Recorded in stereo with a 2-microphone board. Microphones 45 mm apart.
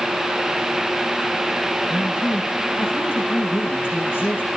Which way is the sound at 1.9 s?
55° left (ahead or behind).